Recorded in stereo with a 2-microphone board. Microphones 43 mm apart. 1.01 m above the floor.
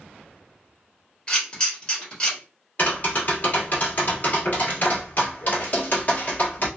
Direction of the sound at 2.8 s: 40° left (ahead or behind).